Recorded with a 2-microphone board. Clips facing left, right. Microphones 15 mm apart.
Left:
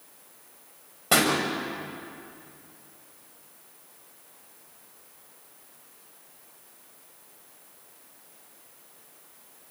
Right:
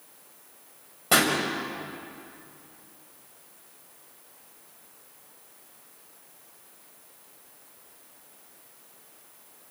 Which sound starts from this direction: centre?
A pop, at 1.1 s.